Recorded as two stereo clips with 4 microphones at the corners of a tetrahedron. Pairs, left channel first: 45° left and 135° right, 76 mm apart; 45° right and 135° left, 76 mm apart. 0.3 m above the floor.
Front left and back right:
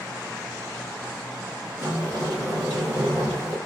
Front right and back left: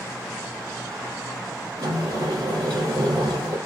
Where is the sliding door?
170° left, 2.5 m.